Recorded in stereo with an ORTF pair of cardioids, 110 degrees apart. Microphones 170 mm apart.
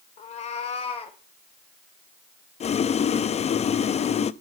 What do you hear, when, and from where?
0.2 s a cat meowing: 45° left, 1.9 m; by 1.2 s 35° left, 3 m
2.6 s boiling: 40° left, 0.8 m